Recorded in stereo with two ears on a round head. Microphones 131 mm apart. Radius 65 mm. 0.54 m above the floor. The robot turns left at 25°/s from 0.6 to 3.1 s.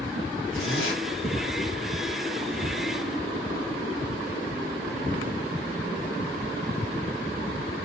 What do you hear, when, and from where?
0.5 s a zipper: 75° left (ahead or behind), 2.5 m; by 1.0 s 70° left (ahead or behind), 2.5 m